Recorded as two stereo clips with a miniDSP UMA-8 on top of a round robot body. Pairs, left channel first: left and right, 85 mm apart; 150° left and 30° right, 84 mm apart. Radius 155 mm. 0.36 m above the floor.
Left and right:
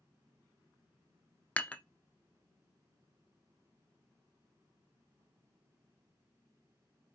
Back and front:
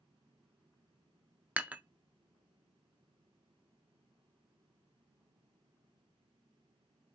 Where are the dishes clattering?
25° left, 0.6 m.